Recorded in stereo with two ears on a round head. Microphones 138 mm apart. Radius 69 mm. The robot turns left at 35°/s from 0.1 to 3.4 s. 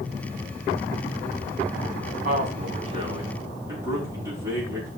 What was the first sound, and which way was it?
A man speaking, 60° right (ahead or behind).